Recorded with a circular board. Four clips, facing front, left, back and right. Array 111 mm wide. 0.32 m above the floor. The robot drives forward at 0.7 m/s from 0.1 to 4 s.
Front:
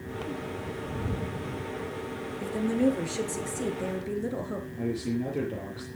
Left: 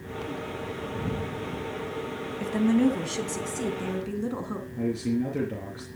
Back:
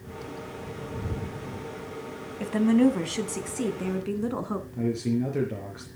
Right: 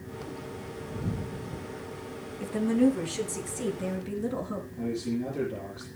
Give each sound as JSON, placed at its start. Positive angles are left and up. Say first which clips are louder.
{"t": 2.4, "sound": "a woman speaking", "louder": "left 1 dB, back 5 dB", "azimuth_deg": 160, "distance_m": 1.9}
{"t": 4.8, "sound": "a man speaking", "louder": "left 4 dB, back 4 dB", "azimuth_deg": 140, "distance_m": 4.5}